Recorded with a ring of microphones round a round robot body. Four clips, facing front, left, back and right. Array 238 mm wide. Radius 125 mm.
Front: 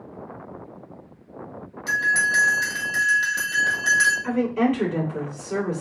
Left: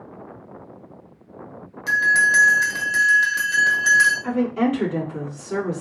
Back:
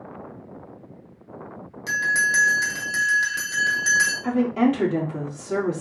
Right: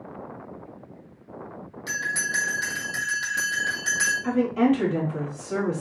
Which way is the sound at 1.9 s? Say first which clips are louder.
Left 11 dB, front 1 dB; 125° left.